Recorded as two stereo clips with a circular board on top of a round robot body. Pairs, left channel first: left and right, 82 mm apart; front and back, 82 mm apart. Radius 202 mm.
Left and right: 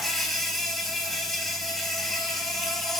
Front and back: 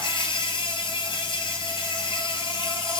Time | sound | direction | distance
0.0 | an insect | 5° left | 3 m